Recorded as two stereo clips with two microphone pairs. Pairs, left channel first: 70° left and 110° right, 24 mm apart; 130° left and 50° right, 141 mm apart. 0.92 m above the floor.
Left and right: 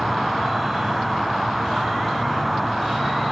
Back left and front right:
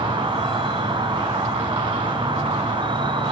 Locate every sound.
0.0 s an insect: 25° right, 1.0 m